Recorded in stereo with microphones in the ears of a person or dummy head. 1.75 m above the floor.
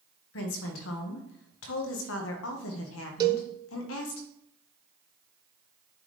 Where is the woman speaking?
75° left (ahead or behind), 1.3 m.